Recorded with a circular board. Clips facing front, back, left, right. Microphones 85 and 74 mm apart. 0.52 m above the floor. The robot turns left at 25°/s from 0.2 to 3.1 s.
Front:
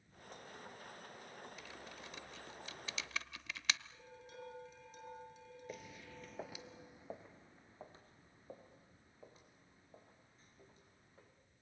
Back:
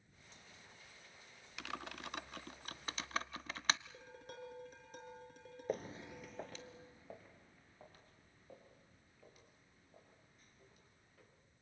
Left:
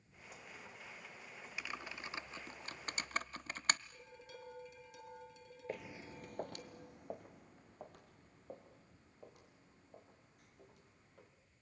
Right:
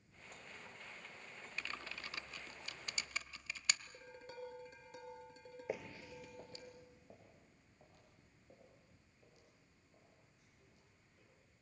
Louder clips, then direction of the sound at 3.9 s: Back 2 dB, right 1 dB; 140° right.